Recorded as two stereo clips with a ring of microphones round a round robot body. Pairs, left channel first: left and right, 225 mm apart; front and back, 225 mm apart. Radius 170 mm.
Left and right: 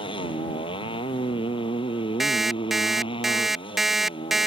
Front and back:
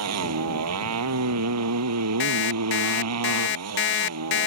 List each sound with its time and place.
0.0 s a motorcycle: 165° left
2.2 s an alarm clock: straight ahead